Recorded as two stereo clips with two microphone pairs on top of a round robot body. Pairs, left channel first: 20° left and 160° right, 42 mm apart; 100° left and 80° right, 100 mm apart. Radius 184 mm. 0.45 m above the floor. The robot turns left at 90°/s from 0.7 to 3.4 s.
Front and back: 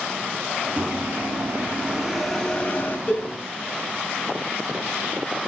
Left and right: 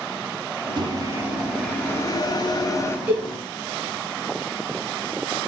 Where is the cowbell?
80° left, 2.5 m; by 3.2 s 60° left, 2.5 m.